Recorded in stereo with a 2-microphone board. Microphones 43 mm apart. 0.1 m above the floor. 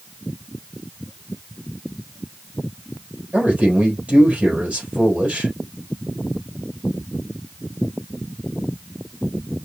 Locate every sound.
3.3 s a man speaking: 30° right (ahead or behind), 3.5 m